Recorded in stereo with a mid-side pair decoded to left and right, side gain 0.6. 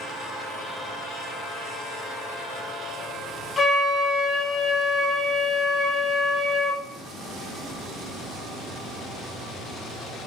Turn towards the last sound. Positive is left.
turn(degrees=20)